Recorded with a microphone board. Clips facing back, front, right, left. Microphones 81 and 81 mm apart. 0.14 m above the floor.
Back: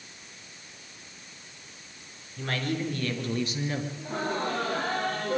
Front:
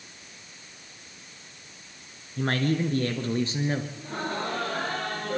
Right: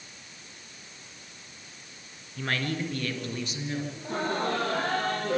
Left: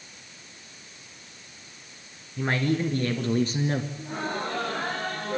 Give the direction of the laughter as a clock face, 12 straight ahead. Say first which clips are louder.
Back 1 dB, right 2 dB; 3 o'clock.